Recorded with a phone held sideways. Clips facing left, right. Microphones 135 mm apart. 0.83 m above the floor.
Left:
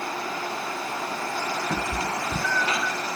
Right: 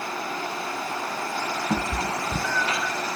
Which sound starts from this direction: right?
A cat meowing, at 1.7 s.